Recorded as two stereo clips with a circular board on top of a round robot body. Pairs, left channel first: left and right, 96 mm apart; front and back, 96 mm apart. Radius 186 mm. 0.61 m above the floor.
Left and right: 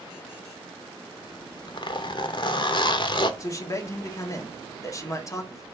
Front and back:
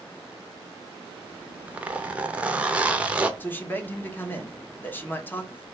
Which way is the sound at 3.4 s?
60° left.